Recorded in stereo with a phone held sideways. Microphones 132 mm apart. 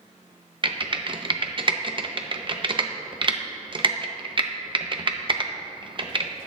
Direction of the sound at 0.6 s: 40° right (ahead or behind).